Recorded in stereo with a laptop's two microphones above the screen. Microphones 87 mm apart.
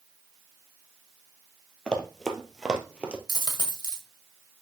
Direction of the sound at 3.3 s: 50° left (ahead or behind).